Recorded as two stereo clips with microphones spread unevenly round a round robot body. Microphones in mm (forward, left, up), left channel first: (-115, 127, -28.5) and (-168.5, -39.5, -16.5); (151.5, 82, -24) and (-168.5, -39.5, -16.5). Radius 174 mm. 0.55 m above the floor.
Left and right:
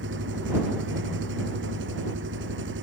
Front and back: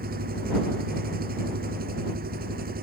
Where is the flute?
I don't hear a flute.